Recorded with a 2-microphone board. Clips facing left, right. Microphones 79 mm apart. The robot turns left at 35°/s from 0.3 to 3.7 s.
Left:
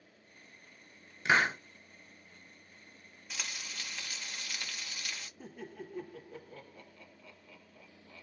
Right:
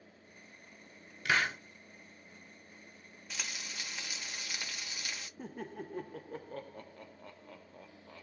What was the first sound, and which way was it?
A hiss, 25° left (ahead or behind).